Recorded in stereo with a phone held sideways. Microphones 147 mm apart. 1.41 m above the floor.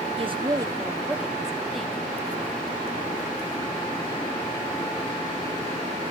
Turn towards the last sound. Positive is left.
turn(degrees=5)  # may be behind; listen again after turning